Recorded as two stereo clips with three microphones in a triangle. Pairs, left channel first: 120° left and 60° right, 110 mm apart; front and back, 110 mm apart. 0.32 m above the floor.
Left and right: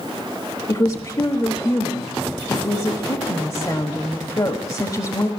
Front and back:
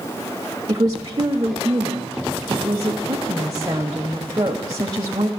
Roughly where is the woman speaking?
Behind left.